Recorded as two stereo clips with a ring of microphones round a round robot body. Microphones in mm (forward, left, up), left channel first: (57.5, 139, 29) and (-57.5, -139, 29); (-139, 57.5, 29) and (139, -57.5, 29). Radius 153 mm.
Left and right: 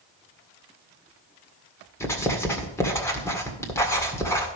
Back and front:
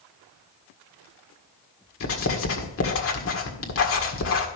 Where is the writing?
145° left, 1.7 m.